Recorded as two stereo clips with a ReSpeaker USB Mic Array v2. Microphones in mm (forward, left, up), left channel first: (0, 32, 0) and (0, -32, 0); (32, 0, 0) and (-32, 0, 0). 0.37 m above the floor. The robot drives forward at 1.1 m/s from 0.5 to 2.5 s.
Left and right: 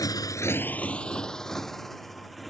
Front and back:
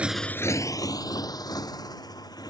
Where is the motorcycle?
110° left; by 2.5 s straight ahead.